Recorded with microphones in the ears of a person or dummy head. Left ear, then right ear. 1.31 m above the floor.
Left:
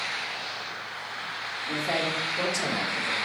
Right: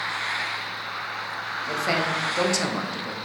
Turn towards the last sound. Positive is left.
turn(degrees=-45)  # may be behind; listen again after turning